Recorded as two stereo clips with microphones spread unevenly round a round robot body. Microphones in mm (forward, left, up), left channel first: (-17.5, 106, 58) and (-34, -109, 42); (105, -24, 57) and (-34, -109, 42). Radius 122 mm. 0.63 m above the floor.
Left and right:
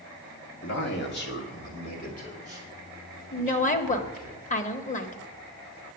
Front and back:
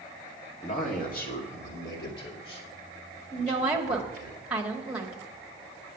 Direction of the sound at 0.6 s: 75° left.